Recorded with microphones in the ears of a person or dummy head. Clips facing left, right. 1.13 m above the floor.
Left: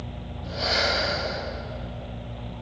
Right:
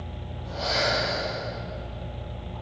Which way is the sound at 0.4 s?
35° left (ahead or behind).